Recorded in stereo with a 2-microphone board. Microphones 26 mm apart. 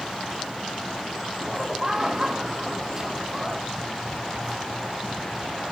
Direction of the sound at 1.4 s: 20° right (ahead or behind).